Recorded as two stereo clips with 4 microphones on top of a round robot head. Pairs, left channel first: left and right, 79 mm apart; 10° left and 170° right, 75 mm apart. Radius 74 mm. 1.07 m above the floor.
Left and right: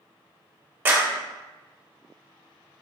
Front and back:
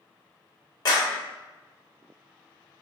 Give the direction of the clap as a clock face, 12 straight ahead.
1 o'clock.